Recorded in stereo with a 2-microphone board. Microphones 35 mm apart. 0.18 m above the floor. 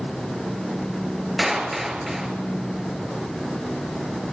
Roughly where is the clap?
Centre.